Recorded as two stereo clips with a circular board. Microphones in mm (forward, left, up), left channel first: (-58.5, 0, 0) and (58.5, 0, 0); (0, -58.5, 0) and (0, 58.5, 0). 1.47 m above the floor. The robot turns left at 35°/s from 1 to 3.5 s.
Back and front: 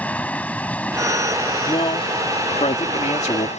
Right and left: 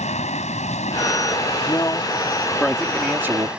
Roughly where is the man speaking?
Behind right.